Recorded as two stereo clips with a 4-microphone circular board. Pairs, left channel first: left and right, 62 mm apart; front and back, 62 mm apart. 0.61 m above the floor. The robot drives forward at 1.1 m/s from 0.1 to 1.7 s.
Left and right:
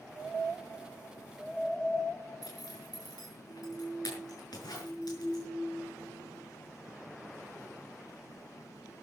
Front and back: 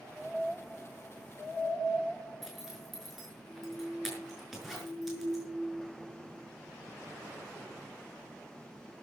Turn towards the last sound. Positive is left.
turn(degrees=90)